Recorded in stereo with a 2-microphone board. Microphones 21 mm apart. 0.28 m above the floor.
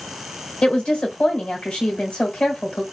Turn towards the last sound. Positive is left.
turn(degrees=45)  # may be behind; listen again after turning